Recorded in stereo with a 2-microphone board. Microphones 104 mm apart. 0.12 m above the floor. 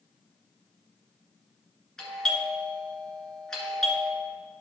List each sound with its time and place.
2.0 s a doorbell: 5° left (ahead or behind), 1.8 m